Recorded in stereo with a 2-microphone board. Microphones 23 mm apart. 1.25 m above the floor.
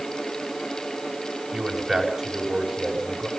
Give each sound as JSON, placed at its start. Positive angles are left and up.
{"t": 1.5, "sound": "a man speaking", "side_deg": -25, "distance_m": 6.5}